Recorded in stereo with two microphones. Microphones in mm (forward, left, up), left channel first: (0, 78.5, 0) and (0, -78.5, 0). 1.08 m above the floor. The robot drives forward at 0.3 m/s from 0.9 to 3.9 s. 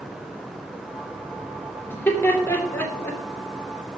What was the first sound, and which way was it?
Laughter, 15° left (ahead or behind).